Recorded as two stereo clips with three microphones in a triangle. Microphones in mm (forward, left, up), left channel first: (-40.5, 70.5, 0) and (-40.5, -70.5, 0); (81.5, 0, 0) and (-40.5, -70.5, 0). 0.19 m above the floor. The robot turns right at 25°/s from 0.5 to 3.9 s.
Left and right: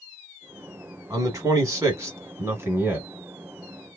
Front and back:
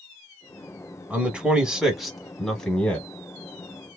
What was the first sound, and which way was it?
A man speaking, 85° right.